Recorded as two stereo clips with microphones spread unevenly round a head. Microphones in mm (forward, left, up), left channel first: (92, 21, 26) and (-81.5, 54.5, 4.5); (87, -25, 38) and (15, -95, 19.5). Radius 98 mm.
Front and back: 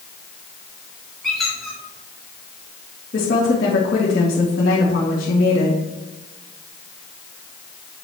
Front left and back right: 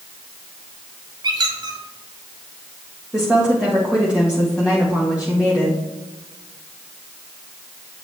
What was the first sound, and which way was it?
A squeak, 95° right.